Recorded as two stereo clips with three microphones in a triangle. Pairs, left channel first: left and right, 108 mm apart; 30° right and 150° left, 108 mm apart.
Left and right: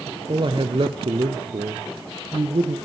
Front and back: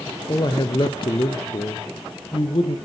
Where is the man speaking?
65° right, 2 m; by 2.8 s 70° right, 4 m.